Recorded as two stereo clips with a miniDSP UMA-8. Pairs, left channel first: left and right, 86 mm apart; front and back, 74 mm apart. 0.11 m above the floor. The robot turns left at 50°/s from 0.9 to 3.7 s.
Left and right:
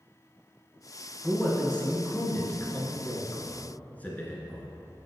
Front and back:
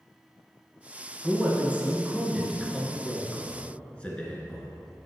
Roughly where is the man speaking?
Behind.